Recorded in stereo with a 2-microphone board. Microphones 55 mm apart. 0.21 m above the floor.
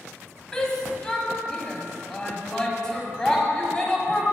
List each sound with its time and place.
0.5 s a shout: 10° left (ahead or behind), 1.0 m